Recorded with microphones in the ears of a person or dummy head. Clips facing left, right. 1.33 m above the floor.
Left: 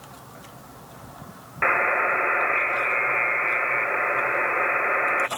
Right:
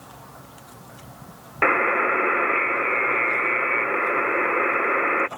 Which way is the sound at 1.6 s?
45° right (ahead or behind).